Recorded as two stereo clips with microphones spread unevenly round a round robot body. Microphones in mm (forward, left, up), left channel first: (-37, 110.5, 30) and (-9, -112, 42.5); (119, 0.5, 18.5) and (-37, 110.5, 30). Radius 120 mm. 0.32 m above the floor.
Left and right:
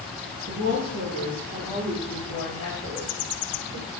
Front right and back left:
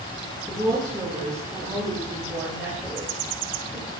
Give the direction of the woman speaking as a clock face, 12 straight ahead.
4 o'clock.